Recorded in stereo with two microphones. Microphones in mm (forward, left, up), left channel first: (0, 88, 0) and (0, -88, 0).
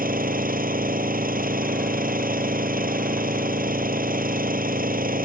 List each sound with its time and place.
0.0 s an engine running: 55° right (ahead or behind)